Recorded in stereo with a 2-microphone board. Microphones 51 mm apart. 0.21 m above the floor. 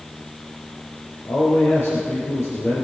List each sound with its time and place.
1.2 s a man speaking: 65° left (ahead or behind), 3 m